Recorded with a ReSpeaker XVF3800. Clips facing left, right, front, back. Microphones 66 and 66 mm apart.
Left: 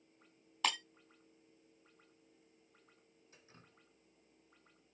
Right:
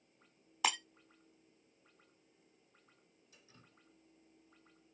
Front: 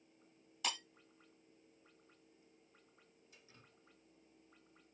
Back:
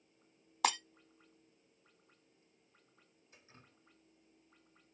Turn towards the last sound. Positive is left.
turn(degrees=130)